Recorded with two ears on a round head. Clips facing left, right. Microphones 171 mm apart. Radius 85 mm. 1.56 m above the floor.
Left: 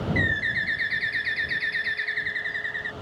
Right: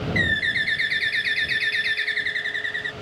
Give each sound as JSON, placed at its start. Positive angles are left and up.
{"t": 0.1, "sound": "a bird", "side_deg": -40}